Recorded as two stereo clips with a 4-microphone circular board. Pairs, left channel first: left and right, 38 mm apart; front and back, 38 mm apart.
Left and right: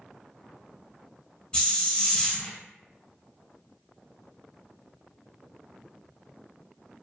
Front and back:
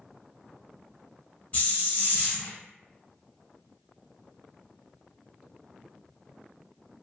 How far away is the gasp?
No gasp in this recording.